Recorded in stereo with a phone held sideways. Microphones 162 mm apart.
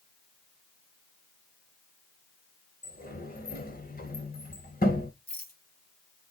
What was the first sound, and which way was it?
A sliding door, 75° left (ahead or behind).